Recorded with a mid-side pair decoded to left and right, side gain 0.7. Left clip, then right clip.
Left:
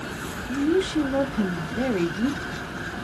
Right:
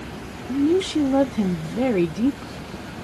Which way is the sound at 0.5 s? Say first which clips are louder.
Right 3 dB; 20° right.